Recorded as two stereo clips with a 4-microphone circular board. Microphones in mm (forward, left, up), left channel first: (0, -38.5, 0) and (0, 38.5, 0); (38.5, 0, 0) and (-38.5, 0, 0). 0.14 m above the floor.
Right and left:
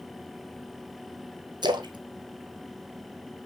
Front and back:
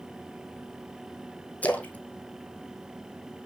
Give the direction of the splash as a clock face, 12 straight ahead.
10 o'clock.